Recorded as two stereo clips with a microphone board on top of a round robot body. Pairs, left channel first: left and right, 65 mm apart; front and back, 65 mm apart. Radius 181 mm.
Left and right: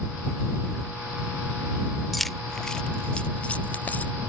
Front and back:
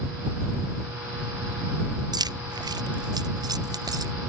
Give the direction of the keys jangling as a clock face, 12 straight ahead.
6 o'clock.